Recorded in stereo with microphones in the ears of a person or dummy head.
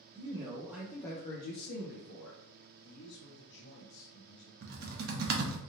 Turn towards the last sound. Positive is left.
turn(degrees=-45)  # may be behind; listen again after turning